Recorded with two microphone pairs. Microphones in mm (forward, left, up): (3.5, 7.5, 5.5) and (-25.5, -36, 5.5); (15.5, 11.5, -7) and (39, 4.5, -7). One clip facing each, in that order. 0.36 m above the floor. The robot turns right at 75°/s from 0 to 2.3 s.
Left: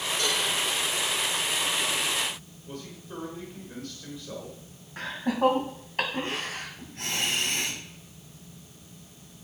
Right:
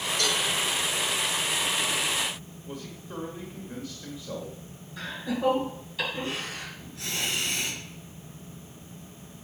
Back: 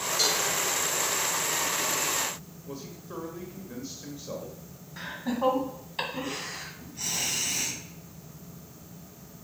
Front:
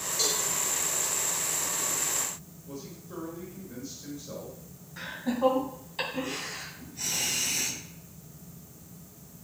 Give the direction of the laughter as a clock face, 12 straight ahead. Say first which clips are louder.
Left 4 dB, front 1 dB; 9 o'clock.